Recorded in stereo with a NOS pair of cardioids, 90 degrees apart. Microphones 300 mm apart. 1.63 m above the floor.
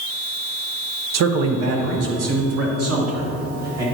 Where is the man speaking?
60° right, 0.8 m; by 3.9 s 55° right, 2.5 m.